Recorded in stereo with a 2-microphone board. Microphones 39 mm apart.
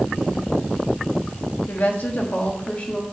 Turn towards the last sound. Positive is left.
turn(degrees=30)  # may be behind; listen again after turning